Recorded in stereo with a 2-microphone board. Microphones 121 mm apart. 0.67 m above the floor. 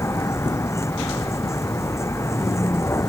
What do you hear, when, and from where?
0.0 s a vehicle: 25° left (ahead or behind)